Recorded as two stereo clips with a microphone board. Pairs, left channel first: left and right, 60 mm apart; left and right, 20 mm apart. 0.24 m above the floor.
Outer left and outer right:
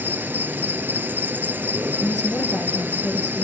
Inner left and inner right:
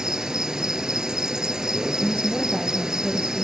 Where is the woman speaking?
65° left (ahead or behind), 5 m.